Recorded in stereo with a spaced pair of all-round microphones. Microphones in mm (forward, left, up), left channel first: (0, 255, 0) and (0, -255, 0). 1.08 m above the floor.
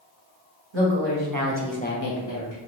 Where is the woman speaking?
65° right (ahead or behind), 1.4 m; by 2.6 s 65° left (ahead or behind), 1.2 m.